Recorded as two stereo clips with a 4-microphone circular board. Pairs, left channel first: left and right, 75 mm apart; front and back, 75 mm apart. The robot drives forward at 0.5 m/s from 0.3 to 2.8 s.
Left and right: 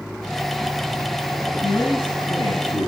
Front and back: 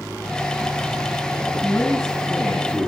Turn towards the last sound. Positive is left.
turn(degrees=100)